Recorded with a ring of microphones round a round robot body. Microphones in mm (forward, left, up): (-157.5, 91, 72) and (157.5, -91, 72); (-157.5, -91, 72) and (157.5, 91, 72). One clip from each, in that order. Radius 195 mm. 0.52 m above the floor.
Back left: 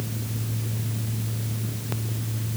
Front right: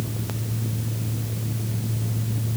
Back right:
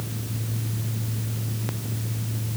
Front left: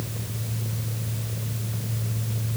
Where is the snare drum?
No snare drum in this recording.